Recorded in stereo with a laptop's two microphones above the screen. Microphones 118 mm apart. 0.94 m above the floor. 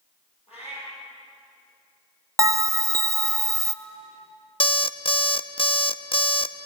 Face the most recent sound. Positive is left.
turn(degrees=50)  # may be behind; listen again after turning